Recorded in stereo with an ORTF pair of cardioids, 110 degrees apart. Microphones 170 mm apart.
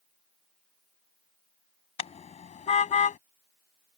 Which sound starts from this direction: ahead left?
A car horn, at 2.0 s.